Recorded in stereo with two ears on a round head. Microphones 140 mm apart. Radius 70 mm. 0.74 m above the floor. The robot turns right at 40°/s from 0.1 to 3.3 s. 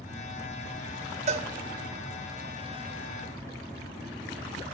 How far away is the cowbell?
About 0.9 m.